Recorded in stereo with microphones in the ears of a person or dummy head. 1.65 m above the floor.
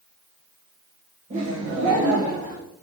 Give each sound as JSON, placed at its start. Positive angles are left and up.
{"t": 1.3, "sound": "laughter", "side_deg": -45, "distance_m": 8.0}